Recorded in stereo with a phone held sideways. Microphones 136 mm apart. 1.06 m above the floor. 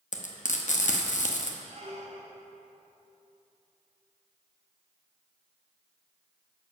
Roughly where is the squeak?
Right.